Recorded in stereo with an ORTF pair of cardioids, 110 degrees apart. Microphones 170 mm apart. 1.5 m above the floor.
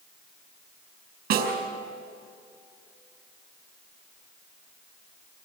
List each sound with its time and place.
1.3 s a snare drum: 70° right, 5.5 m